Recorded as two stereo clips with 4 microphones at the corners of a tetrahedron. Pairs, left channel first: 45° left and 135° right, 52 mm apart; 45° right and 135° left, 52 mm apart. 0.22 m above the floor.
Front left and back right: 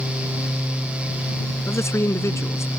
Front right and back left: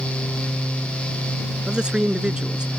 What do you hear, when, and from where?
1.7 s a man speaking: 65° left